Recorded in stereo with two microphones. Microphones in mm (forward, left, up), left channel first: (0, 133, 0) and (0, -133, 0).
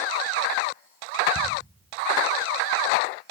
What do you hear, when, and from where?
1.4 s ticking: 80° left, 6 m